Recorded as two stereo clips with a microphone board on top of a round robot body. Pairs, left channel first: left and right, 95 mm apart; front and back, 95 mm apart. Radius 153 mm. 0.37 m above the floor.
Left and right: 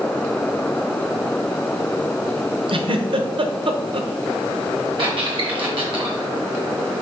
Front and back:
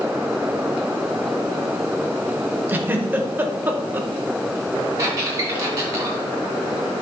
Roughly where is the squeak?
Behind right.